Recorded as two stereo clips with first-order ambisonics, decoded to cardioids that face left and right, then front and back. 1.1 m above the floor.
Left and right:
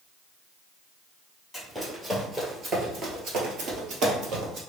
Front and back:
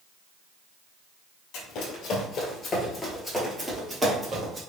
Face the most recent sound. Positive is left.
turn(degrees=-120)